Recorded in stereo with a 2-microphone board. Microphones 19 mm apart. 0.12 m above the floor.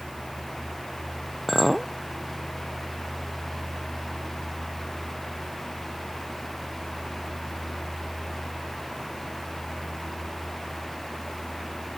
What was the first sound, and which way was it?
A clink, centre (ahead or behind).